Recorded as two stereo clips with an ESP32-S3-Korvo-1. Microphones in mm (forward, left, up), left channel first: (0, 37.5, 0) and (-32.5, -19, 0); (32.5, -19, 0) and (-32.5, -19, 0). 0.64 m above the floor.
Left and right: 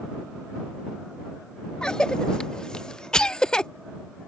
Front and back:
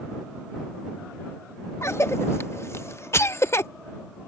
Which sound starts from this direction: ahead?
A cough, at 1.8 s.